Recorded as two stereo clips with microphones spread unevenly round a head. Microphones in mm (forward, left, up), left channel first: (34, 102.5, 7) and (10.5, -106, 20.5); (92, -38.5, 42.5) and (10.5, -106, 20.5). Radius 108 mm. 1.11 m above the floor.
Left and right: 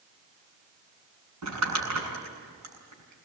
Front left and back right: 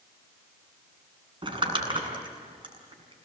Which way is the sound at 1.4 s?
100° right.